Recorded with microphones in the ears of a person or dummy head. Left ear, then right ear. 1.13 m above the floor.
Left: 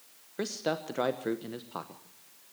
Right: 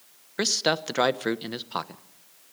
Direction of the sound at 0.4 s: 50° right (ahead or behind).